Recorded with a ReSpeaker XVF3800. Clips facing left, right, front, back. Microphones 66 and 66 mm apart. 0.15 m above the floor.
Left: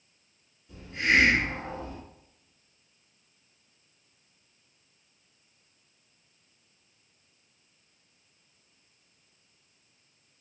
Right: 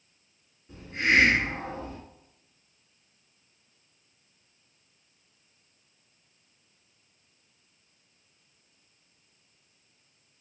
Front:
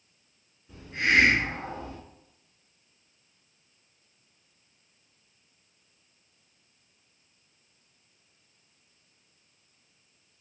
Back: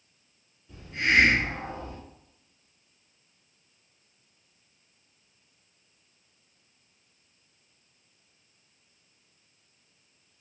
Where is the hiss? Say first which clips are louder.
Right 1 dB, even; 50° right, 1.2 m.